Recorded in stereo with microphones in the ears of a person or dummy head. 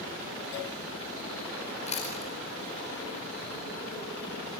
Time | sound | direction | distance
1.9 | chewing | 30° left (ahead or behind) | 5 m